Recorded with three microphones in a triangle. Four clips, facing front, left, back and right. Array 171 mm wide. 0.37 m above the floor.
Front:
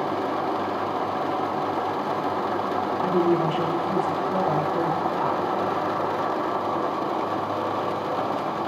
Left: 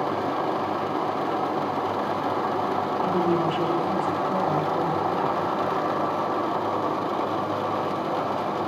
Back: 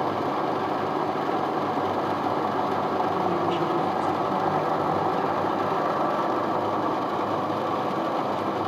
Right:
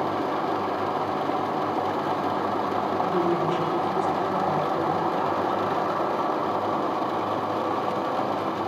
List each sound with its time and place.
3.0 s a woman speaking: 10° left, 3 m